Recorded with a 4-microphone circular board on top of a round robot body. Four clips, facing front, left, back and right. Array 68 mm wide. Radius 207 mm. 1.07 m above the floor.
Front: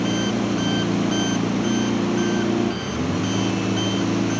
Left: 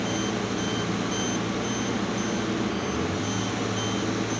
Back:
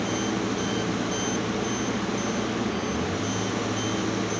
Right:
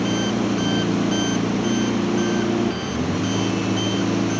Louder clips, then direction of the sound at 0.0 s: Right 6 dB, front 5 dB; 40° right.